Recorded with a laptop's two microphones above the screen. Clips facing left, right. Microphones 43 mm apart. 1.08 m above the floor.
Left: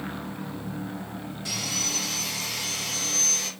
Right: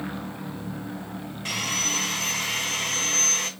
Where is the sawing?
55° right (ahead or behind), 2.5 m.